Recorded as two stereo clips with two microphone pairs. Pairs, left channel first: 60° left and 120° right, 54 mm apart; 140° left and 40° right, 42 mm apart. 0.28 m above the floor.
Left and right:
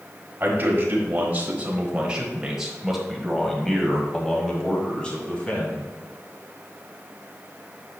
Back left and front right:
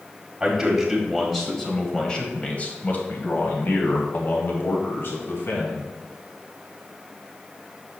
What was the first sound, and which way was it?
A man speaking, 115° right.